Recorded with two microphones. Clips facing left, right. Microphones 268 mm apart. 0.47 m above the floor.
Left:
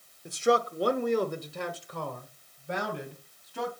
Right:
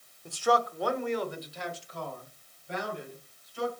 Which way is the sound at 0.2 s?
15° left (ahead or behind).